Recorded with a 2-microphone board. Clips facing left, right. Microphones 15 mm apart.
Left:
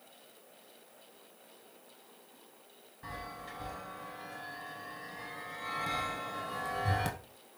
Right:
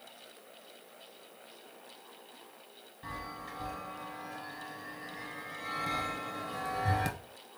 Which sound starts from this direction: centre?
A chime, at 3.0 s.